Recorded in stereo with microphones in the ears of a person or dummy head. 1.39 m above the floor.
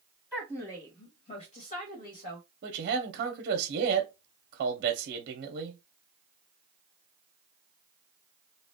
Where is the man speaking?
55° right (ahead or behind), 0.7 m.